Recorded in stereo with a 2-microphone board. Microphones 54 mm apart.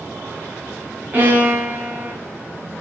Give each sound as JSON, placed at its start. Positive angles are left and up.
{"t": 1.1, "sound": "a violin", "side_deg": -35, "distance_m": 1.3}